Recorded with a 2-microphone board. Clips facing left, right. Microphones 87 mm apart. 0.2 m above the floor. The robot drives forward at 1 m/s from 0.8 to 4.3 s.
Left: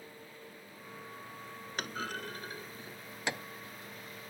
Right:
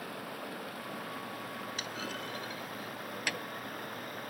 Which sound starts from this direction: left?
A clunk, at 1.8 s.